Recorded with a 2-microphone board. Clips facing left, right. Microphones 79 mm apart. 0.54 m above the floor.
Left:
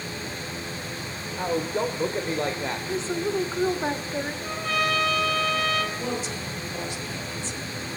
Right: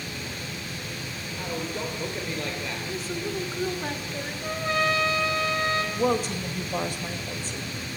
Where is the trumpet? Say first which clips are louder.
Right 3 dB; 25° right (ahead or behind), 4 m.